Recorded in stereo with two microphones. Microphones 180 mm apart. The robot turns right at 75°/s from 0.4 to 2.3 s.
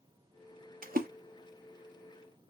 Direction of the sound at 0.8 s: 50° right (ahead or behind).